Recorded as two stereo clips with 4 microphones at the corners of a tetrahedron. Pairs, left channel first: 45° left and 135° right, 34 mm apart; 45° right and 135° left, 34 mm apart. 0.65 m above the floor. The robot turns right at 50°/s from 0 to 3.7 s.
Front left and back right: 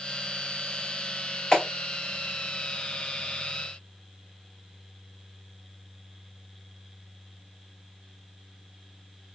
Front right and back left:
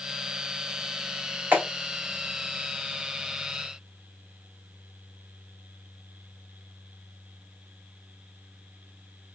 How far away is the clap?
About 2.5 m.